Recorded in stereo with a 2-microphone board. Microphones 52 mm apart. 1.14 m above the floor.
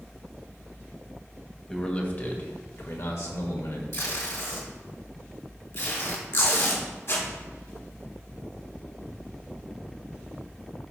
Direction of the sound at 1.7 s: 10° left (ahead or behind).